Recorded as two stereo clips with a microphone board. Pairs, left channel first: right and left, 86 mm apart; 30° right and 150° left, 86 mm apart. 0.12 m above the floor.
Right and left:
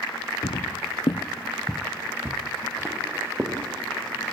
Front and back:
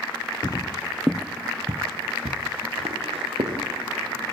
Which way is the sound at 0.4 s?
75° right.